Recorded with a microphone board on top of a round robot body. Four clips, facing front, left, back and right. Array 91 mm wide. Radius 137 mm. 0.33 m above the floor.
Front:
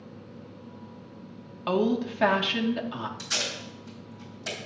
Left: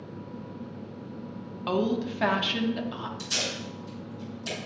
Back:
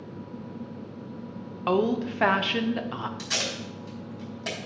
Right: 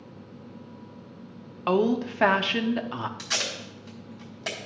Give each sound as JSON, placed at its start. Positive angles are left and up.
{"t": 1.7, "sound": "a woman speaking", "azimuth_deg": -125, "distance_m": 0.9}
{"t": 3.2, "sound": "tape being pulled", "azimuth_deg": -120, "distance_m": 2.5}